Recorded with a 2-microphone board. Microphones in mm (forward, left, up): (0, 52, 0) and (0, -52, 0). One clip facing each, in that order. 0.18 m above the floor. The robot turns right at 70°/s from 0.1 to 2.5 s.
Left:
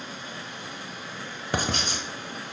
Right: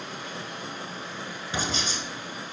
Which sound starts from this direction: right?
Running water, at 0.0 s.